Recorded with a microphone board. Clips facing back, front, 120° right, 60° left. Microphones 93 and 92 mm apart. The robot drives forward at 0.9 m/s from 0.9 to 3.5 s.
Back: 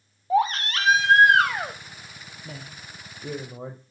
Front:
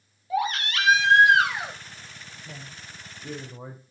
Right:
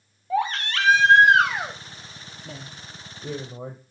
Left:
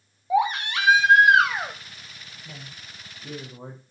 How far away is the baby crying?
About 1.3 m.